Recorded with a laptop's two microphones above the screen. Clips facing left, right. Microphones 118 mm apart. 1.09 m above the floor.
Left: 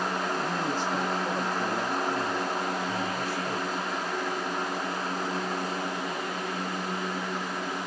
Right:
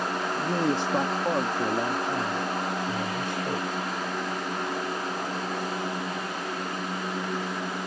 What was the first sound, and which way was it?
A man speaking, 70° right (ahead or behind).